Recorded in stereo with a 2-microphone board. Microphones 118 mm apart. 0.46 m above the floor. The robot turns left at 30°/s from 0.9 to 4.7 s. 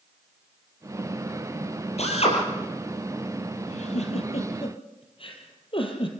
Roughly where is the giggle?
Left.